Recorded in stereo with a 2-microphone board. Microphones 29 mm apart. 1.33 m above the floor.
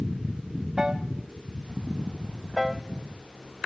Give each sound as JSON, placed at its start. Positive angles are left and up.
{"t": 0.8, "sound": "a piano", "side_deg": -15, "distance_m": 0.8}
{"t": 2.6, "sound": "a piano", "side_deg": -5, "distance_m": 0.6}